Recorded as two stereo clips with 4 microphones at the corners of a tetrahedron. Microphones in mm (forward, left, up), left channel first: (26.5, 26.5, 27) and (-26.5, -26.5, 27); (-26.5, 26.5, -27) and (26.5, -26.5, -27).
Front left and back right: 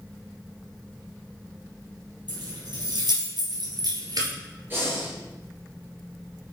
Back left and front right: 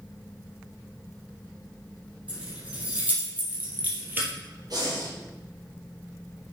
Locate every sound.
2.3 s keys jangling: 120° right, 3.5 m; by 4.3 s 105° right, 2.5 m
4.7 s breathing: 75° right, 3.5 m